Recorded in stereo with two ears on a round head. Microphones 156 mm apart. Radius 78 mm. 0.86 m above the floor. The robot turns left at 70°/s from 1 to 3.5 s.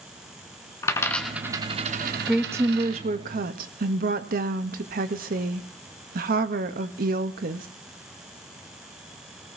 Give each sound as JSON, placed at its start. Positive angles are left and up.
{"t": 0.8, "sound": "a dropped coin", "side_deg": 15, "distance_m": 1.8}
{"t": 2.3, "sound": "a woman speaking", "azimuth_deg": 0, "distance_m": 1.2}